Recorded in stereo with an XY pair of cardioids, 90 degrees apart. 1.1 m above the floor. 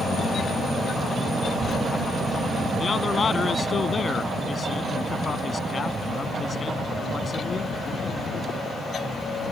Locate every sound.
1.4 s a child speaking: 45° right; by 2.7 s 40° right
2.8 s a man speaking: 35° left